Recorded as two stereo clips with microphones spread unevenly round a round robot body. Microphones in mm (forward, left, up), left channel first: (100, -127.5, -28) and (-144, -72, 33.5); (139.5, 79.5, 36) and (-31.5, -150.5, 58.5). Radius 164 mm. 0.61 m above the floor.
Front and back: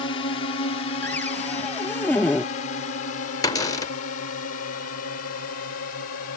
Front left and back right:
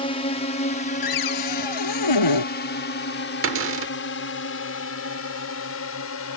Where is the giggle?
No giggle in this recording.